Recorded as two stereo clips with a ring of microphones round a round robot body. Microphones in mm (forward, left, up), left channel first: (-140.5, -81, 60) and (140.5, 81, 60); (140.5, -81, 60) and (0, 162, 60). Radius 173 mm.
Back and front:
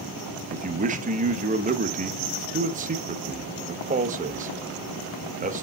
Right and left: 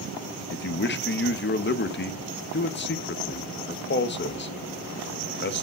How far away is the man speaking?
About 0.9 m.